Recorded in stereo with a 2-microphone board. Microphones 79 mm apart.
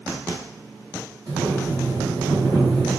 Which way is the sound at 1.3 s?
70° right (ahead or behind).